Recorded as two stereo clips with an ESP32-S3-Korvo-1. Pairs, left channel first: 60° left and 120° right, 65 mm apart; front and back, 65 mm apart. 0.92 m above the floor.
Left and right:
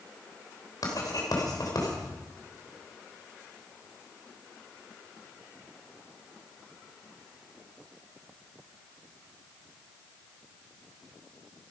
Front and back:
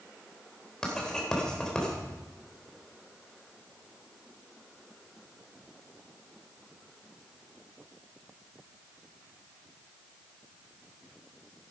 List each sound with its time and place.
0.8 s writing: 80° left, 3 m